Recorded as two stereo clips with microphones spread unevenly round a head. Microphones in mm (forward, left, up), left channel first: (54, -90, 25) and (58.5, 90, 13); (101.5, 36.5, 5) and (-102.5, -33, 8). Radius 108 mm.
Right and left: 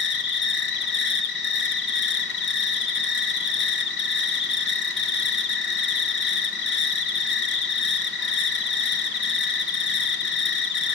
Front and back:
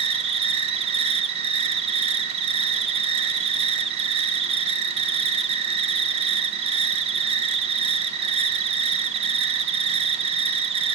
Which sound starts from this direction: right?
An insect, at 0.0 s.